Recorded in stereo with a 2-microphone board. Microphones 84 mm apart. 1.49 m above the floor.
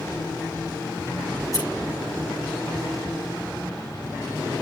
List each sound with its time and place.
1.4 s scissors: 45° left (ahead or behind), 8 m